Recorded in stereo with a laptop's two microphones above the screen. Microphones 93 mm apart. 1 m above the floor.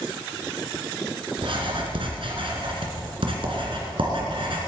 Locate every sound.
1.4 s writing: 70° right (ahead or behind), 2.5 m